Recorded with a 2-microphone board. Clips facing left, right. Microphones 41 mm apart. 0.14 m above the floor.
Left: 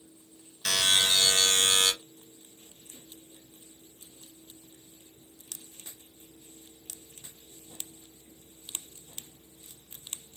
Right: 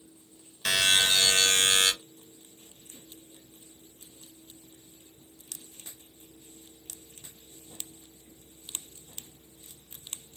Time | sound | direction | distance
0.7 | a buzzer | 20° right (ahead or behind) | 0.7 m